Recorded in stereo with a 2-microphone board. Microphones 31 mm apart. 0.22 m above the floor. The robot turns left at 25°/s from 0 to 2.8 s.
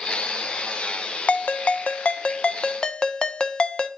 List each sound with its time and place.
1.3 s a ringtone: 70° left, 0.6 m; by 3.9 s 35° left, 0.6 m